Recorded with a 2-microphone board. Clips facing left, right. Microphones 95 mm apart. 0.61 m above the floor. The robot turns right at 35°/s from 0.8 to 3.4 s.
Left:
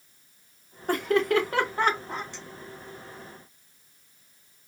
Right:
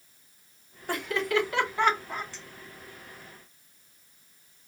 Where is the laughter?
50° left (ahead or behind), 1.5 m; by 2.2 s 30° left (ahead or behind), 1.5 m.